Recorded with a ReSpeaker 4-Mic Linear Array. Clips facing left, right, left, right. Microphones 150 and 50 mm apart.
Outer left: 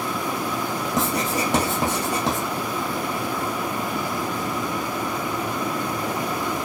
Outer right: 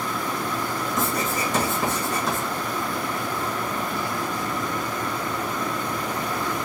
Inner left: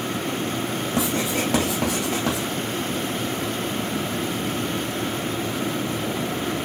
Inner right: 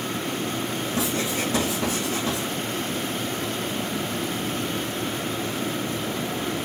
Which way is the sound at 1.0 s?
70° left (ahead or behind).